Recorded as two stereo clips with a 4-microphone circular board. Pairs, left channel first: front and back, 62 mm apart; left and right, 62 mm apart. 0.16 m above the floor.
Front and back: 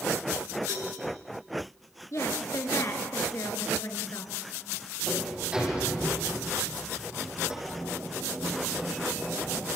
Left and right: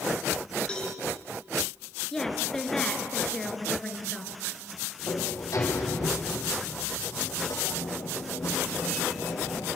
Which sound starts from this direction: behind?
A cowbell, at 0.7 s.